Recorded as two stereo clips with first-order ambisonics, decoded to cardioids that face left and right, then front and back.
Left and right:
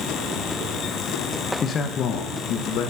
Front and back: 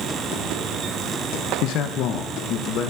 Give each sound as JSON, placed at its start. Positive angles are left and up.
{"t": 1.6, "sound": "a man speaking", "azimuth_deg": 25, "distance_m": 1.1}